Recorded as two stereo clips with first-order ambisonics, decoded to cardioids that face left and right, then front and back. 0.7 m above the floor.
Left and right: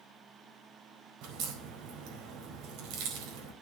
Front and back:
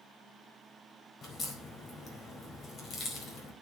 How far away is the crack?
About 4 m.